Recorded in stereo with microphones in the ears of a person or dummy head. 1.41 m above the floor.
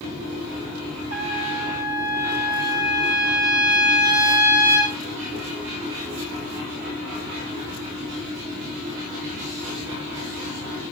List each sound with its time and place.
1.1 s a trumpet: 60° right (ahead or behind), 5.5 m